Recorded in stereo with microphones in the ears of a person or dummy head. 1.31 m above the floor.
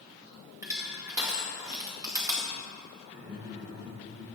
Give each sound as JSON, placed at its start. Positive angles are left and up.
{"t": 0.6, "sound": "crushing", "side_deg": -15, "distance_m": 1.9}
{"t": 3.1, "sound": "laughter", "side_deg": -40, "distance_m": 3.0}